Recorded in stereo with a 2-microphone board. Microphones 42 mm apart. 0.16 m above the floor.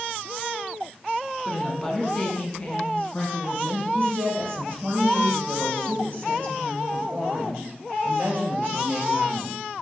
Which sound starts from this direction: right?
A woman speaking, at 3.9 s.